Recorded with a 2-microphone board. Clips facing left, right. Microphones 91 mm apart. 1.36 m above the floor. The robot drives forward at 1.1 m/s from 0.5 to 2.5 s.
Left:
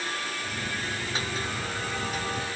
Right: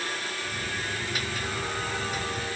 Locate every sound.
Only background noise.